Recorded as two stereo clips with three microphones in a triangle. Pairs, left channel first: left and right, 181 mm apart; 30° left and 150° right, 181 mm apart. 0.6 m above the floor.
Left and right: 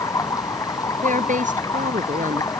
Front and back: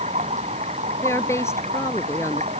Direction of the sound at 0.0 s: 160° left.